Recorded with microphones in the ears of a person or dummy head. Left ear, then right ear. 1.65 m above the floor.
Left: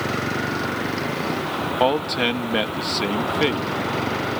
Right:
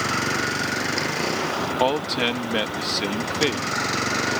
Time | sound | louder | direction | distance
0.0 | a vehicle | right 1 dB | 30° right (ahead or behind) | ?
1.8 | a man speaking | left 3 dB | 5° right (ahead or behind) | ?